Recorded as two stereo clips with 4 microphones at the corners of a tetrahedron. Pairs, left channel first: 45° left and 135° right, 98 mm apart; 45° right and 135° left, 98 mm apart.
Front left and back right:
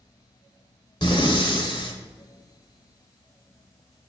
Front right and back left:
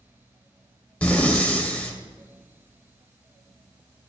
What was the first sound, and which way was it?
Breathing, 30° left.